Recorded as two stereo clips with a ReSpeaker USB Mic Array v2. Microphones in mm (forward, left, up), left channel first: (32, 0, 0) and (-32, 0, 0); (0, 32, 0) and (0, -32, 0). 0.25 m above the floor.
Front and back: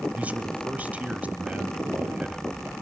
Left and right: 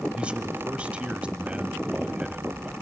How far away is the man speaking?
About 1.1 m.